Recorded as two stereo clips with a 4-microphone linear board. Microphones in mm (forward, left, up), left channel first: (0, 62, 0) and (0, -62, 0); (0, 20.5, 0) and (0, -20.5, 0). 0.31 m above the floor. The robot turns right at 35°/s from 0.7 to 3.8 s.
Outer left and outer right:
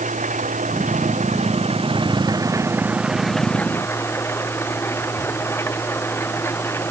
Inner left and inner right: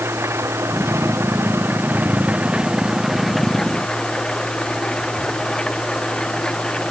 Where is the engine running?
90° right; by 6.9 s 20° left.